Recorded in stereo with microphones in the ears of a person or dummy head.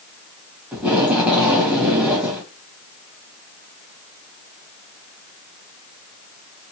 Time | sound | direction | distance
0.7 | tape being pulled | 5° right (ahead or behind) | 1.0 m